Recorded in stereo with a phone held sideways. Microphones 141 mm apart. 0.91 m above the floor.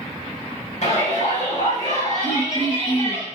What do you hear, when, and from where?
0.8 s a shout: 60° left (ahead or behind), 5 m
2.2 s throat clearing: 50° left (ahead or behind), 2 m